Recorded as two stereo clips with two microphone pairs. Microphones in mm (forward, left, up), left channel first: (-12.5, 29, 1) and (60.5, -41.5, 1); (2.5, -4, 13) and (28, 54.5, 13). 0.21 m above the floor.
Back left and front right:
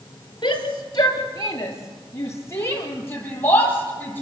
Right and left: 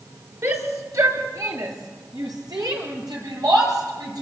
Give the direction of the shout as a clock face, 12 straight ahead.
9 o'clock.